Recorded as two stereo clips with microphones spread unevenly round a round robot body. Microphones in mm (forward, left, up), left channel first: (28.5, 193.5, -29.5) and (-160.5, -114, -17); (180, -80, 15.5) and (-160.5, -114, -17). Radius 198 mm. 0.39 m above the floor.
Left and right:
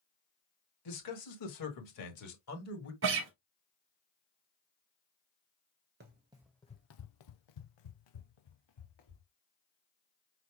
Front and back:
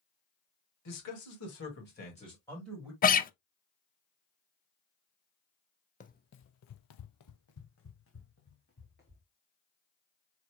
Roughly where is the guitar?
Ahead right.